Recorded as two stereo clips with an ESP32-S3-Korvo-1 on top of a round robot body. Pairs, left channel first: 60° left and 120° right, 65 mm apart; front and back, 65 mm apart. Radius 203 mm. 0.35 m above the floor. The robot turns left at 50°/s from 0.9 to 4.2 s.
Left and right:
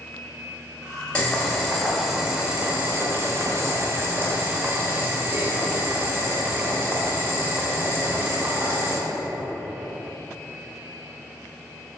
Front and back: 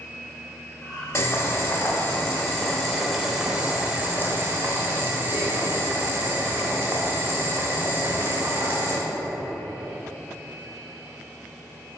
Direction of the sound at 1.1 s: Straight ahead.